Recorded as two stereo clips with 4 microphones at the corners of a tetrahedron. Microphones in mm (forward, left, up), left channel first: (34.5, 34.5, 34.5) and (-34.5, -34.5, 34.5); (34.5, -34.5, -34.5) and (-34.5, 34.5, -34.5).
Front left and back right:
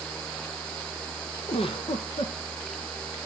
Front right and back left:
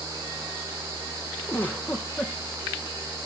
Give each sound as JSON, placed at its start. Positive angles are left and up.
{"t": 1.5, "sound": "a giggle", "azimuth_deg": 25, "distance_m": 1.8}